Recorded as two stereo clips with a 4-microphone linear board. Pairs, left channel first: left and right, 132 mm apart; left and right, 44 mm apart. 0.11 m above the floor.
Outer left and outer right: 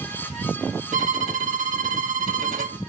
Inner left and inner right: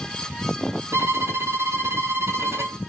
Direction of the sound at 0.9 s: 80° right.